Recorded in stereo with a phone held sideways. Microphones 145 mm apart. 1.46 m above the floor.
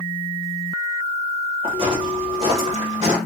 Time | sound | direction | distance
1.6 | footsteps | 35° right (ahead or behind) | 1.7 m